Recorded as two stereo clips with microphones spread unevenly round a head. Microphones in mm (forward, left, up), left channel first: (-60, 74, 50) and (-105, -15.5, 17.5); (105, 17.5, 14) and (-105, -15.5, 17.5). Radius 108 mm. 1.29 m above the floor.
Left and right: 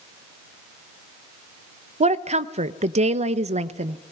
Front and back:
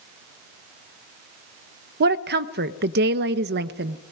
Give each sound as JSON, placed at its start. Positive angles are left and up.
{"t": 2.0, "sound": "a woman speaking", "azimuth_deg": -125, "distance_m": 0.9}